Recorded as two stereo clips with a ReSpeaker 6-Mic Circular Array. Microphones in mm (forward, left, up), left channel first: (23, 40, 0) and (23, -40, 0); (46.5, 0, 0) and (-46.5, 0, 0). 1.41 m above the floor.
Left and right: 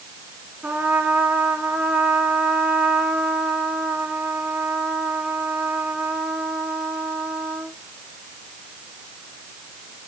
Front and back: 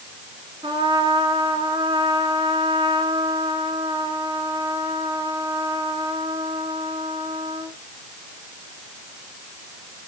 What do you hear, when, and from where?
0.6 s a trumpet: 160° right, 2.5 m